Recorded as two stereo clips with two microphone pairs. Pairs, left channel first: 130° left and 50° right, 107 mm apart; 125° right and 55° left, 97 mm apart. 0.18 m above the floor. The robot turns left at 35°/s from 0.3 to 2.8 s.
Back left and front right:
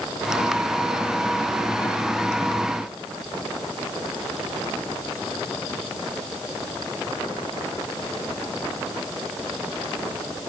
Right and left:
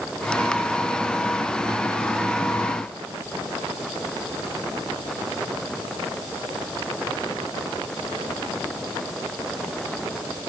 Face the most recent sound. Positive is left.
No sound to turn to.